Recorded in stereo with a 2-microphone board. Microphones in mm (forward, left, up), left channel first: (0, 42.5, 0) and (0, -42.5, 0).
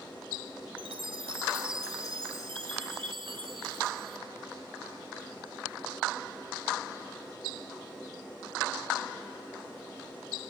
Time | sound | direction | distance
0.8 | a chime | 75° right (ahead or behind) | 1.7 m